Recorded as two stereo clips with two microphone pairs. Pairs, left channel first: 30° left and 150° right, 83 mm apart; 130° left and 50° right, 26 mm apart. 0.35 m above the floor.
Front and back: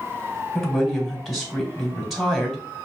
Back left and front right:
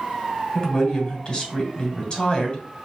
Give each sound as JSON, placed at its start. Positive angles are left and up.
{"t": 0.6, "sound": "a woman speaking", "azimuth_deg": 125, "distance_m": 1.5}